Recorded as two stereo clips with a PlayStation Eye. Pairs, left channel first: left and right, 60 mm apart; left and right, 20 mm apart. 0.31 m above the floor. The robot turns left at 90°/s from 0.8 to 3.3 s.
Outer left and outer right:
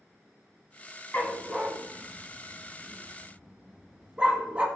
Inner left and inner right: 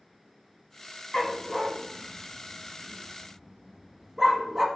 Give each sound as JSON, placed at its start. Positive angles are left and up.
{"t": 1.1, "sound": "a dog barking", "side_deg": 35, "distance_m": 1.1}